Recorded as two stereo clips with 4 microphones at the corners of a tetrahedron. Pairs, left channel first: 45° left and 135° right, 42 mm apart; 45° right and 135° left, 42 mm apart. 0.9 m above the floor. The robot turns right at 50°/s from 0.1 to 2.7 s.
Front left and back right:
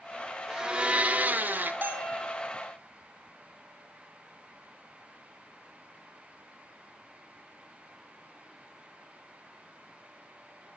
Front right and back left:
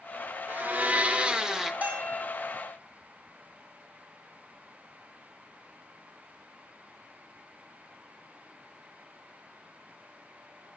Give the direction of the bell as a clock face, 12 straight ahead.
6 o'clock.